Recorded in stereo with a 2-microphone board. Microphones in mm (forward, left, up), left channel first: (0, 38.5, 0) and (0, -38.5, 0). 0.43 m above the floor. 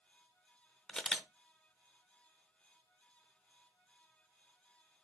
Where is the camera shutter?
10° left (ahead or behind), 0.6 m.